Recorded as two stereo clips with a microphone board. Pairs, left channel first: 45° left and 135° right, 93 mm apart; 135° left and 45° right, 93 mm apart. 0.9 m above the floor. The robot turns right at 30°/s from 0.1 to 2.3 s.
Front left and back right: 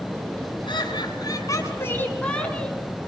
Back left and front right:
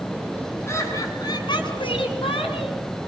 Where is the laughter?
75° left, 7.5 m; by 2.8 s 120° left, 7.5 m.